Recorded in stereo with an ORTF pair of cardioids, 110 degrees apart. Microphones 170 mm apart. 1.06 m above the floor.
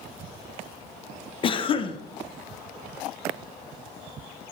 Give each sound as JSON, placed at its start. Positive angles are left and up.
{"t": 1.4, "sound": "a cough", "azimuth_deg": 35, "distance_m": 0.7}